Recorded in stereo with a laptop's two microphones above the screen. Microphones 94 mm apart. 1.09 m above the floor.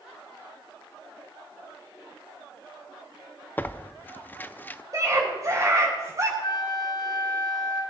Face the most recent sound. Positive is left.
turn(degrees=45)  # may be behind; listen again after turning